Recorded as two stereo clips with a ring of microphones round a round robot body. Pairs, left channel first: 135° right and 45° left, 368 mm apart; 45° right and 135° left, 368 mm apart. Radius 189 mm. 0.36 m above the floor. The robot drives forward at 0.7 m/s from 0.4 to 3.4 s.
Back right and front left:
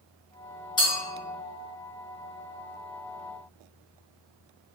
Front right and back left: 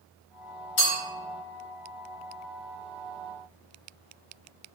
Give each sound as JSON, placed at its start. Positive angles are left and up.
{"t": 0.8, "sound": "a clink", "azimuth_deg": -60, "distance_m": 1.6}